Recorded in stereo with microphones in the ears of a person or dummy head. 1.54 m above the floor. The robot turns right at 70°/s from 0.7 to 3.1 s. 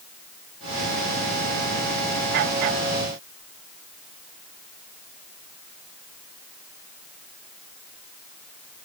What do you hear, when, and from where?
Only background noise.